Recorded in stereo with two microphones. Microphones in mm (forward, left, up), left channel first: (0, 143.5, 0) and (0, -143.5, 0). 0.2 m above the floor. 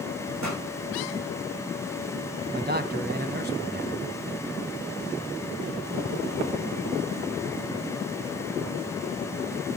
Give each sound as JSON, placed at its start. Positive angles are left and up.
{"t": 0.4, "sound": "a pop", "side_deg": -70, "distance_m": 6.5}
{"t": 2.5, "sound": "a man speaking", "side_deg": -35, "distance_m": 1.6}